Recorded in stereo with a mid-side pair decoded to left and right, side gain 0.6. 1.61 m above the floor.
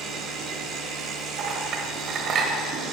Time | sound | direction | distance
0.0 | a machine running | 65° right | 1.2 m
1.4 | a clink | 55° right | 1.4 m